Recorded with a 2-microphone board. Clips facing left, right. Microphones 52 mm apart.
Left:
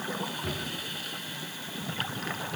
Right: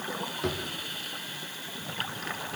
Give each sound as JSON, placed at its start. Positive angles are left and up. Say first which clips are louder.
{"t": 0.4, "sound": "a drawer", "louder": "right 3 dB", "side_deg": -65, "distance_m": 5.0}